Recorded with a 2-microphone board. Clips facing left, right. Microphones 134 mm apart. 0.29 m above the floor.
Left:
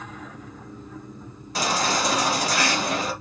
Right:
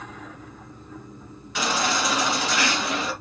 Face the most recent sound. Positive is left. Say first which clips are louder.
# left 1 dB
turn(degrees=35)  # may be behind; listen again after turning